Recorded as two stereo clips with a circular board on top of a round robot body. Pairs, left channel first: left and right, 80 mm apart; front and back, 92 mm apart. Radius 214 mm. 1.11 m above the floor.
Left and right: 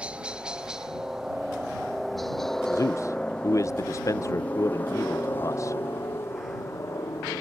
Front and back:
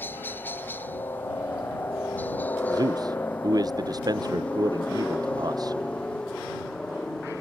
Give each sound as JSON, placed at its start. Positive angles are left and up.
{"t": 0.0, "sound": "a helicopter", "azimuth_deg": -35}
{"t": 2.7, "sound": "a man speaking", "azimuth_deg": 135}